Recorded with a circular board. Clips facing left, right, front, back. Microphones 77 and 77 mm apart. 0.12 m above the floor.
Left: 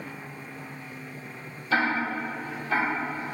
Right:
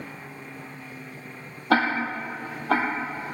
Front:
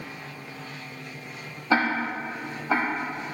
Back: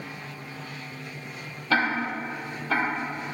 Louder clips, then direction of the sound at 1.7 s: Right 3 dB, front 1 dB; 70° right.